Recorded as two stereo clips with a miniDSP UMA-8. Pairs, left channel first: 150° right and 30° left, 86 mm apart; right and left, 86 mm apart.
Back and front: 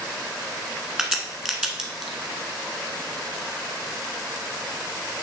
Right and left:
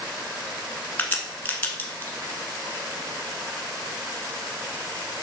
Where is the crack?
45° right, 1.4 m.